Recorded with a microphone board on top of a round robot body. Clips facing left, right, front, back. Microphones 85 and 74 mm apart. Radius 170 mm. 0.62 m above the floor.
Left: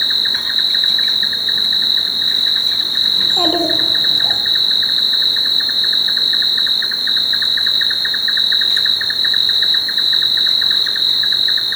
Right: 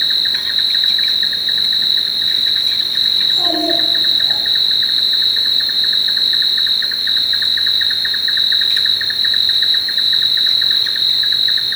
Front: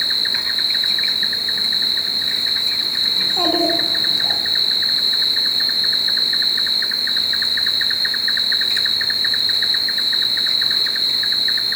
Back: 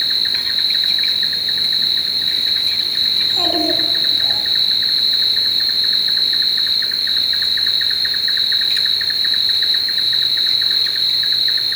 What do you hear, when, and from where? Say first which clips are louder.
0.0 s an insect: left 1 dB, even; 50° left, 1.0 m
3.2 s a child speaking: left 3 dB, front 2 dB; 70° left, 1.5 m